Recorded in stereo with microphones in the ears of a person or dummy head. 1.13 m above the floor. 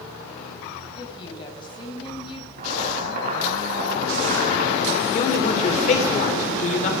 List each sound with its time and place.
1.0 s a woman speaking: 30° left (ahead or behind), 6 m
2.6 s boiling: 60° right (ahead or behind), 6.5 m
5.1 s a man speaking: 45° left (ahead or behind), 4 m